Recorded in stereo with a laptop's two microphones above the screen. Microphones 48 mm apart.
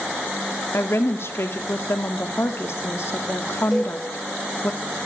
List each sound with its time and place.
0.7 s a woman speaking: 60° left (ahead or behind), 2 m
3.7 s a cowbell: 5° right (ahead or behind), 5 m